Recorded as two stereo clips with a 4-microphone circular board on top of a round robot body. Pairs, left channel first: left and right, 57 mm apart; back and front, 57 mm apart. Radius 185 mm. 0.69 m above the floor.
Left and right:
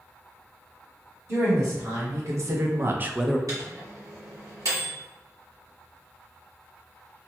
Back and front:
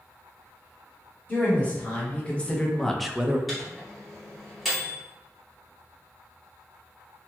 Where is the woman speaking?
120° right, 2.0 m; by 3.4 s 20° left, 0.6 m.